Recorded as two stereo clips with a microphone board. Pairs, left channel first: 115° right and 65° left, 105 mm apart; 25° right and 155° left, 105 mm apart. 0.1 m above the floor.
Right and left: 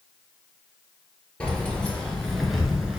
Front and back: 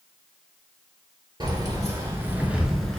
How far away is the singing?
No singing in this recording.